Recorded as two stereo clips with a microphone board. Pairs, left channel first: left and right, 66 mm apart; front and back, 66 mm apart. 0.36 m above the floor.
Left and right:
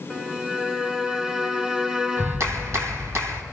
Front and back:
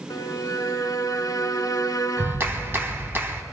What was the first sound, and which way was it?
A violin, 15° right.